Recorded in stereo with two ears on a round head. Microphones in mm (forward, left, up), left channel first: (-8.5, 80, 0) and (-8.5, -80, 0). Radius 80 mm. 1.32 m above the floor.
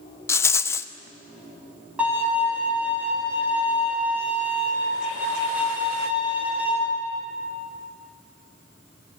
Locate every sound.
0.3 s a rattle: 15° left (ahead or behind), 0.6 m
2.0 s a violin: 10° right (ahead or behind), 5.5 m